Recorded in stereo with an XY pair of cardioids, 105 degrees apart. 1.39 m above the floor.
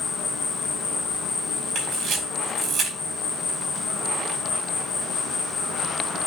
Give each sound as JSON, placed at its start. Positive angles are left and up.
{"t": 0.0, "sound": "an insect", "azimuth_deg": 65, "distance_m": 1.6}
{"t": 1.8, "sound": "a camera shutter", "azimuth_deg": -45, "distance_m": 4.0}